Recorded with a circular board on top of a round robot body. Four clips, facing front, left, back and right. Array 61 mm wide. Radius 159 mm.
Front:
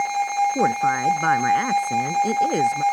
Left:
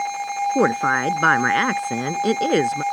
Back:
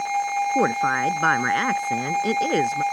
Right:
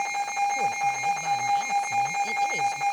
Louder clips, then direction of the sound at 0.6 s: Left 7 dB, front 1 dB; 105° left.